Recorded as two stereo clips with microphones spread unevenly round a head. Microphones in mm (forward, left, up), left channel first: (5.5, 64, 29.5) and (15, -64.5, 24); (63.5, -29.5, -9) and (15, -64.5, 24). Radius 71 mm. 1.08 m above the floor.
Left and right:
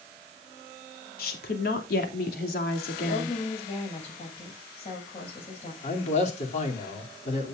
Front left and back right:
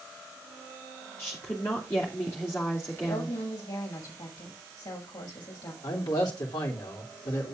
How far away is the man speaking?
About 3 m.